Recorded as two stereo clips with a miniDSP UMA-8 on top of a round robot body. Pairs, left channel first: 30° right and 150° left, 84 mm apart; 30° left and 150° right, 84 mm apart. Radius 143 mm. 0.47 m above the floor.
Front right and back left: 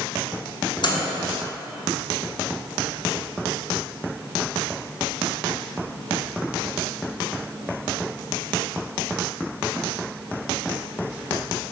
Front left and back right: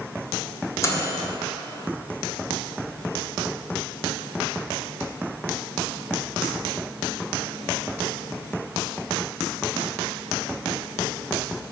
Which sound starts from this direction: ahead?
A microwave, at 0.8 s.